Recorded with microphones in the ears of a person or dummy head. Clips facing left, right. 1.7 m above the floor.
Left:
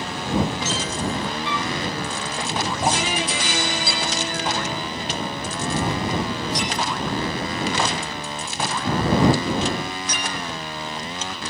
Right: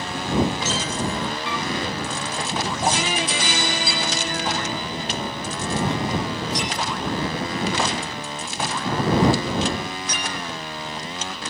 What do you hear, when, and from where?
1.4 s a flute: 50° right (ahead or behind)
2.8 s a thud: centre (ahead or behind)